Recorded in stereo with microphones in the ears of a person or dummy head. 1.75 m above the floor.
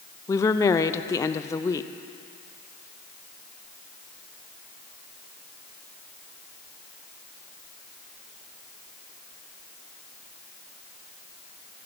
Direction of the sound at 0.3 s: 20° left (ahead or behind).